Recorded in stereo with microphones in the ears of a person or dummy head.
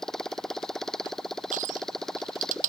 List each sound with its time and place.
0.0 s a motorcycle: centre (ahead or behind)
1.5 s crushing: 55° right (ahead or behind)